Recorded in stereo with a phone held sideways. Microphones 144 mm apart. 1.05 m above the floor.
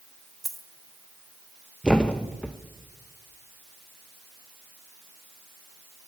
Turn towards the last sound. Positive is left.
turn(degrees=5)  # may be behind; listen again after turning